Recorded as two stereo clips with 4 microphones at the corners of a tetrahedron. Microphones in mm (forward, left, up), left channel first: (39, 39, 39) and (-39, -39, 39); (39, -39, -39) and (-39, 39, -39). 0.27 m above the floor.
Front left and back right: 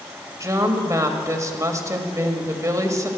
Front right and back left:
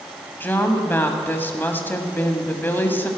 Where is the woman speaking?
100° right, 1.5 m.